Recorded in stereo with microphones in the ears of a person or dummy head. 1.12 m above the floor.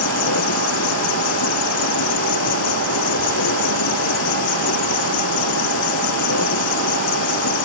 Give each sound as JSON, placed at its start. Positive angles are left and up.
{"t": 0.0, "sound": "an insect", "side_deg": 75}